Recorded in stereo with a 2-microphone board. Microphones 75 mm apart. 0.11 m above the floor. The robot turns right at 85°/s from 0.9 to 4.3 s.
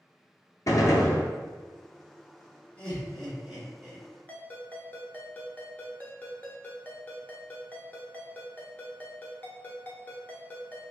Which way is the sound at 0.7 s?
50° left (ahead or behind).